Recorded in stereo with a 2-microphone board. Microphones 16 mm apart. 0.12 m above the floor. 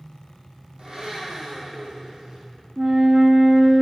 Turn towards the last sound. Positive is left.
turn(degrees=-45)  # may be behind; listen again after turning